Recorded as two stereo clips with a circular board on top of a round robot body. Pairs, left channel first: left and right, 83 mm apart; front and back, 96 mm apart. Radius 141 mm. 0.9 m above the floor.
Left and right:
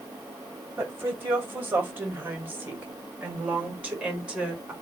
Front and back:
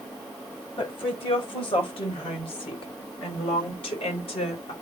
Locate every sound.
0.8 s a woman speaking: 30° right, 5.5 m; by 4.7 s 10° right, 4 m